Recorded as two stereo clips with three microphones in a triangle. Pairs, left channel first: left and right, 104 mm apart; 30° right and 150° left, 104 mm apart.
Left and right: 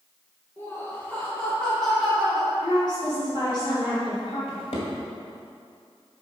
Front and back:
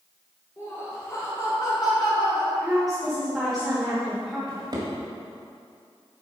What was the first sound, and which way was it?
Laughter, 25° left.